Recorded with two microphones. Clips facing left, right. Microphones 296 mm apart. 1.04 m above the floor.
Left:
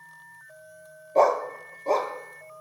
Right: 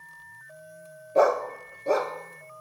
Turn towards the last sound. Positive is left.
turn(degrees=-10)  # may be behind; listen again after turning